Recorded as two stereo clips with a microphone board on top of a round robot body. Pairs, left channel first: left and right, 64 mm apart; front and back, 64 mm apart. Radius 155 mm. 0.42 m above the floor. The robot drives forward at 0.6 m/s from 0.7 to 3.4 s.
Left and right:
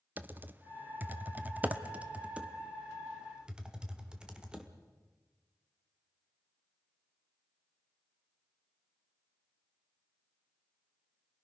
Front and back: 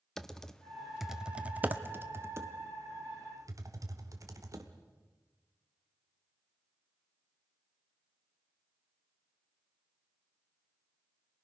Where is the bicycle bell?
No bicycle bell in this recording.